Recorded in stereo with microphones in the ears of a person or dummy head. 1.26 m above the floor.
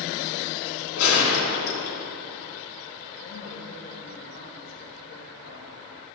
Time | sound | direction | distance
1.0 | a gunshot | 75° left (ahead or behind) | 3 m
3.2 | a woman speaking | 50° left (ahead or behind) | 1.7 m